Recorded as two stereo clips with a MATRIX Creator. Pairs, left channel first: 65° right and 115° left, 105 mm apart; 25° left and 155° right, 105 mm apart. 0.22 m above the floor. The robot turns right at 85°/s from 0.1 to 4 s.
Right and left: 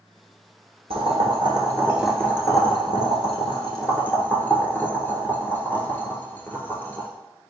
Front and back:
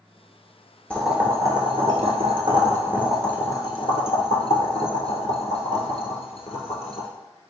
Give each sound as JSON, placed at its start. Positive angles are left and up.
{"t": 0.9, "sound": "boiling", "azimuth_deg": 100, "distance_m": 0.9}